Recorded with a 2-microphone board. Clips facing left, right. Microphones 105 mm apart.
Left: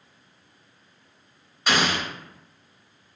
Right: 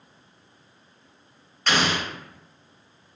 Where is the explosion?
10° left (ahead or behind), 0.7 m.